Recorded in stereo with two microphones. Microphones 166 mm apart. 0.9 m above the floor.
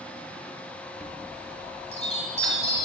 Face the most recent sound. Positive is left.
turn(degrees=40)  # may be behind; listen again after turning